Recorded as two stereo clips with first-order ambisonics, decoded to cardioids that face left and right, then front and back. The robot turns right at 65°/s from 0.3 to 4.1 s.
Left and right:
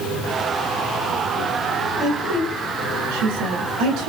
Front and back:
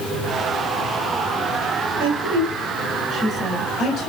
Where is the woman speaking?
Straight behind, 3.5 m; by 4.1 s 45° right, 3.5 m.